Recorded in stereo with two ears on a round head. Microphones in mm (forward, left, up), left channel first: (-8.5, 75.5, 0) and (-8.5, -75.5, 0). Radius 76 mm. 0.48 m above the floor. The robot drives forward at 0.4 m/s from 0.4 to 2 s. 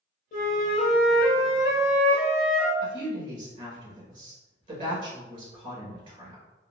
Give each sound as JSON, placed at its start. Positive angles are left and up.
{"t": 0.3, "sound": "a flute", "side_deg": 50, "distance_m": 0.8}
{"t": 2.8, "sound": "a woman speaking", "side_deg": -30, "distance_m": 1.5}